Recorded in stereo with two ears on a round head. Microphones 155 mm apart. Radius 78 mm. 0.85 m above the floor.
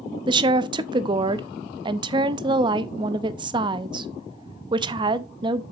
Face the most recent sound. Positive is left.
turn(degrees=-25)  # may be behind; listen again after turning